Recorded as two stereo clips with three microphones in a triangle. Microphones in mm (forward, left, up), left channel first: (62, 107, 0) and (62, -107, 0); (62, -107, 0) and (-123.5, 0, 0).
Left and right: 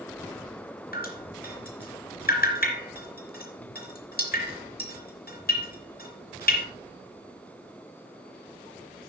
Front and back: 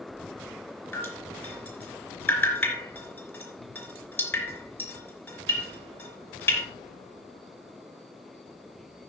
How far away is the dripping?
About 3.5 m.